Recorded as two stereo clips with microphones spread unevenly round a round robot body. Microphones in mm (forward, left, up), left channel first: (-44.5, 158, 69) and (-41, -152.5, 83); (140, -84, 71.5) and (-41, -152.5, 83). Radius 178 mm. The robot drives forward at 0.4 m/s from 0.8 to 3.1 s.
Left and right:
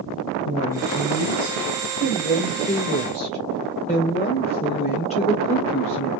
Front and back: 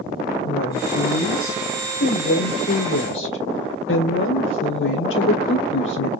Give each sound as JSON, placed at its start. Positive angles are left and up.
{"t": 0.4, "sound": "a woman speaking", "azimuth_deg": 15, "distance_m": 3.0}